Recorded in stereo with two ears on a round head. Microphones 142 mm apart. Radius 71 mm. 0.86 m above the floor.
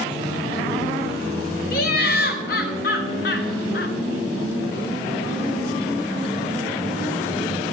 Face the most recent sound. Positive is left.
turn(degrees=60)  # may be behind; listen again after turning